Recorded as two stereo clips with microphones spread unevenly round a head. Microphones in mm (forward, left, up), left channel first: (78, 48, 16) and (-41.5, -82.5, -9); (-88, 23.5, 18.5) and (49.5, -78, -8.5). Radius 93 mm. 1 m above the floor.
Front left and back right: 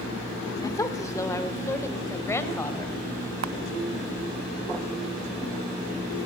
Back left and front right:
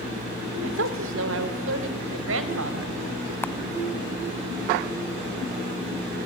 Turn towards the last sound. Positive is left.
turn(degrees=-145)